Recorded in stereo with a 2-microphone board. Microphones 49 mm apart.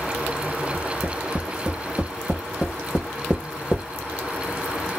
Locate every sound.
0.7 s tapping: 30° right (ahead or behind), 3 m